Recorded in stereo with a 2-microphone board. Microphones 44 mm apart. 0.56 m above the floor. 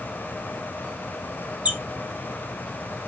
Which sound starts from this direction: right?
A squeak, at 1.6 s.